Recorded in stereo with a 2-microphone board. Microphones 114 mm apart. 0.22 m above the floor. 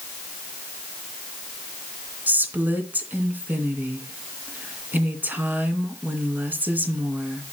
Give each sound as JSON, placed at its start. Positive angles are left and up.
{"t": 2.3, "sound": "a woman speaking", "side_deg": -15, "distance_m": 2.5}